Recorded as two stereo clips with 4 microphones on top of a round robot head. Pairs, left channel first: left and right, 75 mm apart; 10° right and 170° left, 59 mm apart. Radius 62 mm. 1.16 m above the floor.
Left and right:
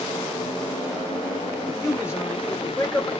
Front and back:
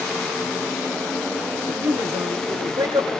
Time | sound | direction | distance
1.7 | a man speaking | 145° left | 3 m